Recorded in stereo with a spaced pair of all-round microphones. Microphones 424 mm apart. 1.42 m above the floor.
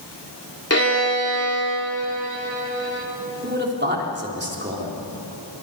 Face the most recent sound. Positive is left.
turn(degrees=-25)  # may be behind; listen again after turning